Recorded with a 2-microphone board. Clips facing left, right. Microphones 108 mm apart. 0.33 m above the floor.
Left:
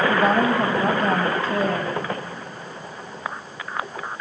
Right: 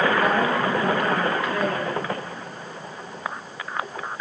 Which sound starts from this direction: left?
A woman speaking, at 0.1 s.